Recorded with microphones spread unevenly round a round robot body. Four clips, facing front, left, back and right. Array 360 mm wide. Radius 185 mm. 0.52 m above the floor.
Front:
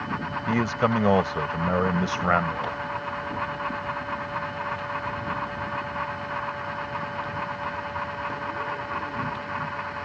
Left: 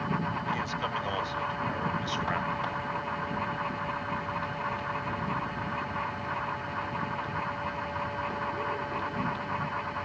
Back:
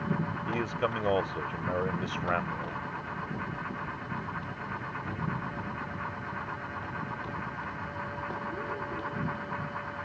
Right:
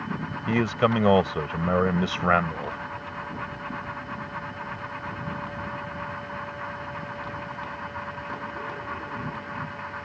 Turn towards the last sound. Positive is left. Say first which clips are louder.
# right 9 dB, front 9 dB
turn(degrees=-55)